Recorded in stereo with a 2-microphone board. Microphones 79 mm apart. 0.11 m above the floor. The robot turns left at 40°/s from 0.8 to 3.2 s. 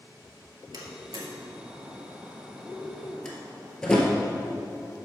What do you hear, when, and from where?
0.7 s a door slam: 55° right (ahead or behind), 2 m; by 4.1 s 10° left (ahead or behind), 2 m